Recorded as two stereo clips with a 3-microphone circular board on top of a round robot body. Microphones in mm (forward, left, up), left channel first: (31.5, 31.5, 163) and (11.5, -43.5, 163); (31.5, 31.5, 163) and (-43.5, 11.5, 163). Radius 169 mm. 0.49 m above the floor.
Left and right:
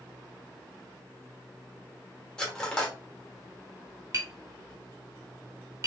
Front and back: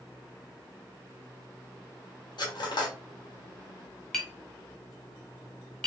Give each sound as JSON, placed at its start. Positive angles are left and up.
{"t": 2.4, "sound": "cutlery clinking", "azimuth_deg": -5, "distance_m": 1.6}
{"t": 4.1, "sound": "tapping", "azimuth_deg": -60, "distance_m": 2.0}